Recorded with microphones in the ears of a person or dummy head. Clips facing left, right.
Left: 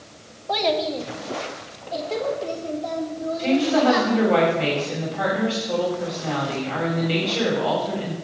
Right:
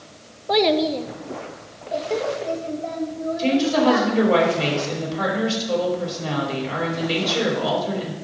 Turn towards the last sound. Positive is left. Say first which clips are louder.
# even
turn(degrees=-60)  # may be behind; listen again after turning